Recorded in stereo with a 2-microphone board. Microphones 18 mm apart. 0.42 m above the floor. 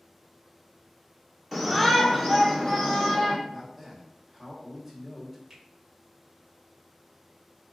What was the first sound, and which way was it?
A shout, 5° right (ahead or behind).